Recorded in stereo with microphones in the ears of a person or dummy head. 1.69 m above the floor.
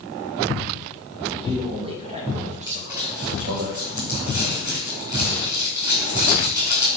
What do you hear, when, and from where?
1.3 s a man speaking: 30° right (ahead or behind), 4 m; by 3.7 s 55° right (ahead or behind), 2 m
2.7 s crumpling: 20° right (ahead or behind), 4 m